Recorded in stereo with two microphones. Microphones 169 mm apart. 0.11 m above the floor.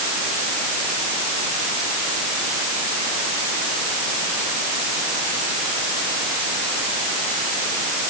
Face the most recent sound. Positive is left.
No sound to turn to.